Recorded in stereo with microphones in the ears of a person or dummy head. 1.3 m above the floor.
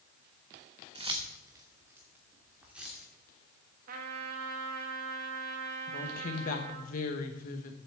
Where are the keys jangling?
30° right (ahead or behind), 1.1 m; by 3.0 s 5° right (ahead or behind), 2.5 m.